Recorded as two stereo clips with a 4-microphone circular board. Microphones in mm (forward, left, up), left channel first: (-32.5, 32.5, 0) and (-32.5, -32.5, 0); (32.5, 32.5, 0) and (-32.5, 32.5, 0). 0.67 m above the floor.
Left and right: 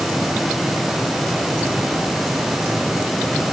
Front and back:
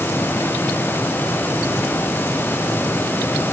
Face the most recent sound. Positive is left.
No sound to turn to.